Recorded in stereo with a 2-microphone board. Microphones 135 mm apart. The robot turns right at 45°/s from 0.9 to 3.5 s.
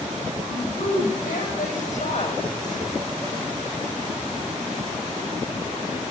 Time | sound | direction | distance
0.5 | a woman speaking | 70° left | 9 m